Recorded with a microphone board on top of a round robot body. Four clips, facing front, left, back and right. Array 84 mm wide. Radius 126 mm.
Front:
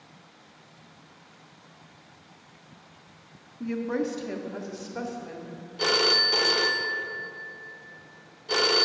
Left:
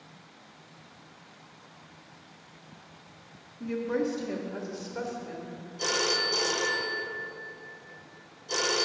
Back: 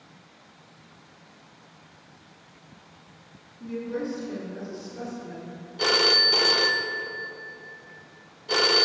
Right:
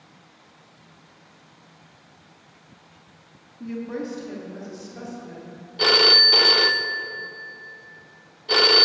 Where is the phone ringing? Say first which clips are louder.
Right 9 dB, back 1 dB; 95° right, 0.5 m.